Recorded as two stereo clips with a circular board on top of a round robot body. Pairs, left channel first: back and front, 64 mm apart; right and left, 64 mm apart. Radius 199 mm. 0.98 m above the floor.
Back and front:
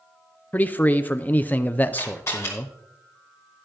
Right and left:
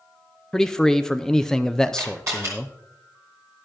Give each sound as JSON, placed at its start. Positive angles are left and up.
{"t": 0.5, "sound": "a man speaking", "azimuth_deg": -165, "distance_m": 0.7}
{"t": 1.9, "sound": "a camera shutter", "azimuth_deg": 130, "distance_m": 3.0}